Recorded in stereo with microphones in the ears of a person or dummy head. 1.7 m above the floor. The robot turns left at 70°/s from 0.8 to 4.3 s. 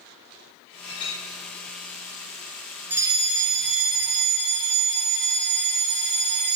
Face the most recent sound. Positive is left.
turn(degrees=-105)